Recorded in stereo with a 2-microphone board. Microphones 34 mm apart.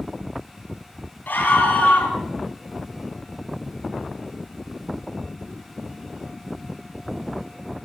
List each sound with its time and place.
1.3 s a scream: 70° left (ahead or behind), 6 m